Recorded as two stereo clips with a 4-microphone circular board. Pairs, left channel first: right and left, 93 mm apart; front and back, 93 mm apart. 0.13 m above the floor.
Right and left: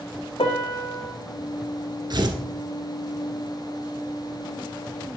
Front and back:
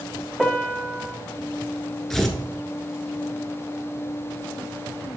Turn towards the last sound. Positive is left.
turn(degrees=85)